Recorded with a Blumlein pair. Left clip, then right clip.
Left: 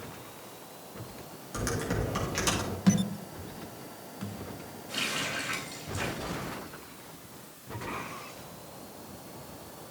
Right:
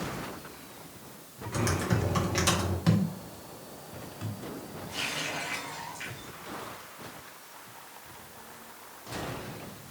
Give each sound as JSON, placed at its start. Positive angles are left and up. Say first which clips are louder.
{"t": 1.5, "sound": "typing on a keyboard", "louder": "right 2 dB", "azimuth_deg": 0, "distance_m": 1.9}
{"t": 2.9, "sound": "a thud", "louder": "left 1 dB", "azimuth_deg": 0, "distance_m": 1.2}
{"t": 4.9, "sound": "a running tap", "louder": "left 1 dB", "azimuth_deg": 35, "distance_m": 3.5}